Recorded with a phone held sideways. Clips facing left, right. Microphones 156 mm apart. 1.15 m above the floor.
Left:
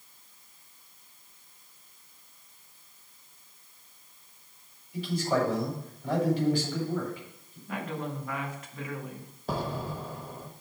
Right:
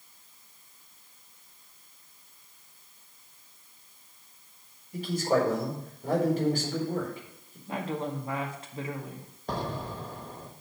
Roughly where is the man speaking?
Right.